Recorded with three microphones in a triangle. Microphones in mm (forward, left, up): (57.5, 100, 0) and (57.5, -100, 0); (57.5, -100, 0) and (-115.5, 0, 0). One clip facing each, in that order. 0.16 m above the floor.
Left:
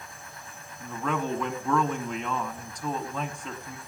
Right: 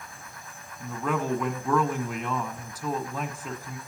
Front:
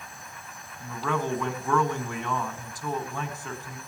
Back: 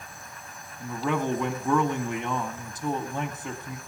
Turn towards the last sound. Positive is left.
turn(degrees=-170)